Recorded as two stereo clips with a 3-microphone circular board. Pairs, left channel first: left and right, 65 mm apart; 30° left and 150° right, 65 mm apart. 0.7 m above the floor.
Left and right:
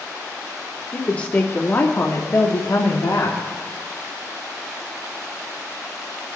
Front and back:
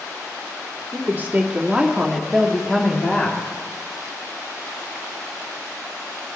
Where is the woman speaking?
165° left, 1.3 m; by 3.4 s 95° left, 1.5 m.